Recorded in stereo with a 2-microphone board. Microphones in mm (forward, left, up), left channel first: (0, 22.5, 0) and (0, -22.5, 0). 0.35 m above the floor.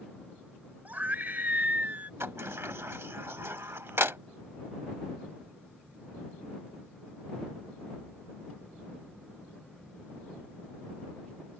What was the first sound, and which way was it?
A scream, 40° right (ahead or behind).